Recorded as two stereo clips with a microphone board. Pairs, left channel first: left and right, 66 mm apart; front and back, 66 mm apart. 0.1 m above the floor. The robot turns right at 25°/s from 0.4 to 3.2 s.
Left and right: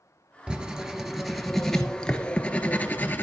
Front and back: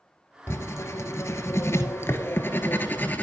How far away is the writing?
About 0.8 m.